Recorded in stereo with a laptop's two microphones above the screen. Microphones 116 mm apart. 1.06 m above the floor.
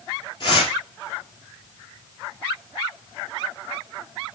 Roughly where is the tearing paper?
Left.